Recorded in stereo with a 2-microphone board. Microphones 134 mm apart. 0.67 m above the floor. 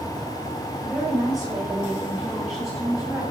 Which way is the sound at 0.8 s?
5° left (ahead or behind).